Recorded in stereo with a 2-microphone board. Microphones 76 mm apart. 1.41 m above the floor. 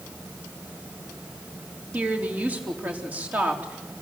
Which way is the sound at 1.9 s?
20° right (ahead or behind).